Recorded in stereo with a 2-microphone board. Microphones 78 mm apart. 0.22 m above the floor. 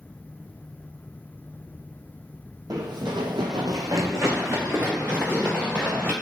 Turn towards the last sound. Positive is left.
turn(degrees=-20)  # may be behind; listen again after turning